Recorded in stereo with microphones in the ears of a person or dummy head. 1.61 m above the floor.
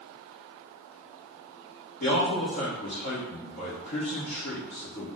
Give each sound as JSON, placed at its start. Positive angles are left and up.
{"t": 2.0, "sound": "a man speaking", "side_deg": 50, "distance_m": 1.1}